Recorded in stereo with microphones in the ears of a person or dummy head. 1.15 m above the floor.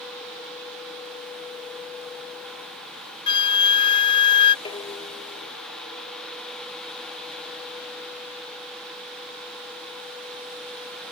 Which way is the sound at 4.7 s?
30° left (ahead or behind).